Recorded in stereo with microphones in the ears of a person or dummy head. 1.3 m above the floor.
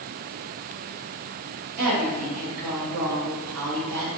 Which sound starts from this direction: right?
A woman speaking, at 1.8 s.